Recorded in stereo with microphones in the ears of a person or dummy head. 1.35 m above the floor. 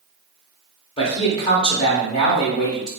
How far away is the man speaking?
About 0.8 m.